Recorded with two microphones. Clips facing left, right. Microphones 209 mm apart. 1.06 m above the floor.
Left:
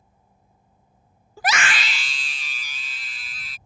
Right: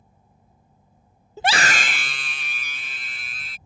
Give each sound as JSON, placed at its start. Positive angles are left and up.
{"t": 1.4, "sound": "a scream", "side_deg": -20}